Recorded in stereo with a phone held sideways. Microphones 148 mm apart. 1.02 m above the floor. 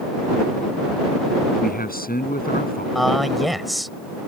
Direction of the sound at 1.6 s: 90° left.